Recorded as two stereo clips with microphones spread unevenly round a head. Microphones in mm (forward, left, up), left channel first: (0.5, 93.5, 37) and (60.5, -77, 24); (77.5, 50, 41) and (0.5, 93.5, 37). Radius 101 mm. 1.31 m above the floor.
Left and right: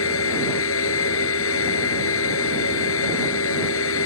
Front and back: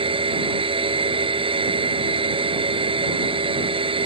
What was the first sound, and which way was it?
A machine running, 135° left.